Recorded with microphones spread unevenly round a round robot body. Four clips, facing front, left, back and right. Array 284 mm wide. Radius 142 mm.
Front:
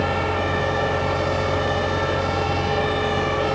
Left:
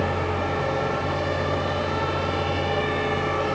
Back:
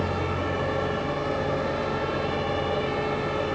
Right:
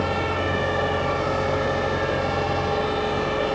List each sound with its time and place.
Only background noise.